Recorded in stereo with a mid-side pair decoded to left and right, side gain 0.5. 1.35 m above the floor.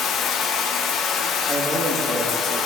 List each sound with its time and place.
0.0 s running water: 65° left, 1.1 m
1.5 s a man speaking: 15° right, 2 m